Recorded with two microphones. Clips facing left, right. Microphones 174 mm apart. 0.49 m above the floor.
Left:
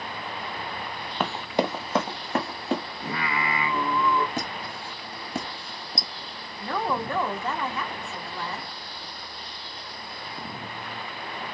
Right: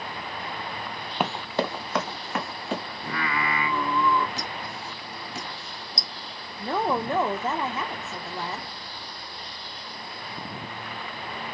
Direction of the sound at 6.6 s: 20° right (ahead or behind).